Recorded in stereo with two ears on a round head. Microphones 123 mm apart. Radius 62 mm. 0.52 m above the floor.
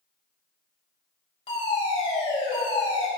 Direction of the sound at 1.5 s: 40° left (ahead or behind).